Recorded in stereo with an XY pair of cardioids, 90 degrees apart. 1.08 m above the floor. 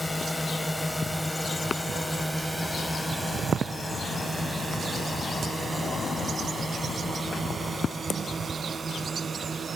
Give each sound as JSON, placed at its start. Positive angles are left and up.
{"t": 0.0, "sound": "a drone", "azimuth_deg": 15}